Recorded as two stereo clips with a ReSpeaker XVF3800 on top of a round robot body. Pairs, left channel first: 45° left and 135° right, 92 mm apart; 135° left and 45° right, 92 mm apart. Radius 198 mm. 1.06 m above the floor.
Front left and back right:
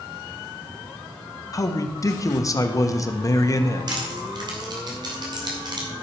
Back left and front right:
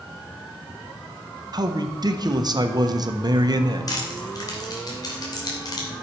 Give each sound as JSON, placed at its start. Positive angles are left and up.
{"t": 1.5, "sound": "a man speaking", "azimuth_deg": -5, "distance_m": 1.4}
{"t": 3.9, "sound": "crushing", "azimuth_deg": -175, "distance_m": 3.0}